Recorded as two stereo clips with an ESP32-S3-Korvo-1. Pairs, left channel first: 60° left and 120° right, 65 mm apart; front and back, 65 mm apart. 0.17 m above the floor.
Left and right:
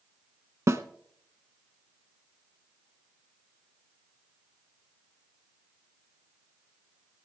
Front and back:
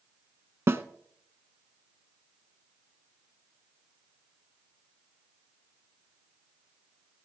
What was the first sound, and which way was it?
A snare drum, 140° right.